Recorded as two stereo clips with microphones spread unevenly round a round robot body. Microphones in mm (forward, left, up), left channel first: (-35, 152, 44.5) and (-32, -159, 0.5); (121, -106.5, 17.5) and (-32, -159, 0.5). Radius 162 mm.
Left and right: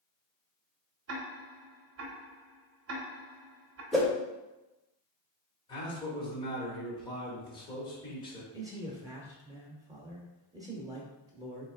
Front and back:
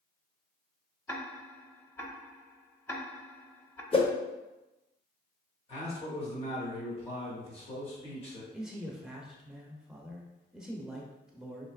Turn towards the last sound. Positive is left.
turn(degrees=-100)